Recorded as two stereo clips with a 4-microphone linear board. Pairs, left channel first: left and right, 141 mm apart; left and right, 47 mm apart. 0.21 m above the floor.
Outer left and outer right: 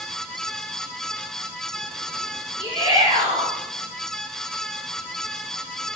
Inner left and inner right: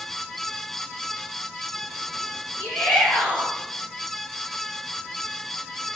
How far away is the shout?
About 5 m.